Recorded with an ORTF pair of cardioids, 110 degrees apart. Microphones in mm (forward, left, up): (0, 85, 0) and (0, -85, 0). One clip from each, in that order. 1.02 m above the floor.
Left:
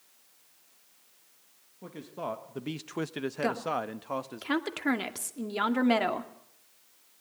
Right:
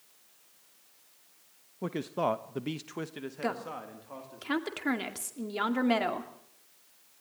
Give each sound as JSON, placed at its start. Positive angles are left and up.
{"t": 1.8, "sound": "a man speaking", "azimuth_deg": -55, "distance_m": 1.2}
{"t": 3.4, "sound": "a woman speaking", "azimuth_deg": 15, "distance_m": 2.0}